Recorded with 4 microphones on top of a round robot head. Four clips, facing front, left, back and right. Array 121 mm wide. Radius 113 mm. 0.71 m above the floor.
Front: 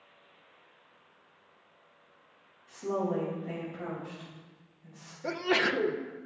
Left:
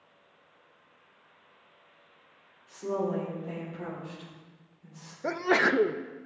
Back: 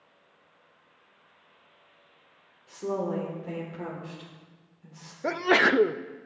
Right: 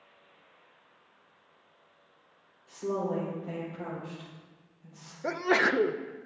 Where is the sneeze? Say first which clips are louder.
Left 1 dB, back 6 dB; 175° left, 0.5 m.